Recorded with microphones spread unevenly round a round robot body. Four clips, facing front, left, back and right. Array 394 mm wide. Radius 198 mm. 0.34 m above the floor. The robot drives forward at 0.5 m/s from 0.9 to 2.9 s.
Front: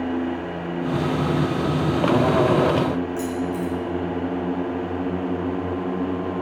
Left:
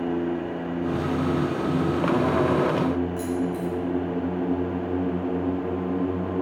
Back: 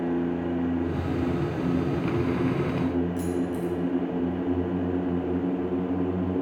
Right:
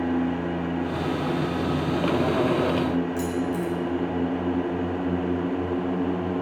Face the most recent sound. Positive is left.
turn(degrees=-140)